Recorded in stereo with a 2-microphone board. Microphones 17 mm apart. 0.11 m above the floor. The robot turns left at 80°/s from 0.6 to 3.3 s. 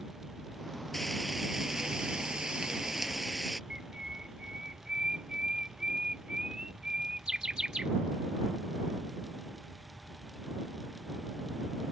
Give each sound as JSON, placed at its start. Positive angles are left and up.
{"t": 0.9, "sound": "frying", "azimuth_deg": 20}
{"t": 3.7, "sound": "a bird", "side_deg": -55}